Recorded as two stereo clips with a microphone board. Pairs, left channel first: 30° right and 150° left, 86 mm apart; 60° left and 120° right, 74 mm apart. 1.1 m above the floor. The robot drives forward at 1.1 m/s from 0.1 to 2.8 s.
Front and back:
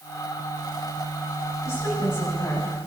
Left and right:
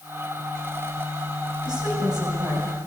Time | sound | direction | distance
1.6 | a woman speaking | 85° right | 8 m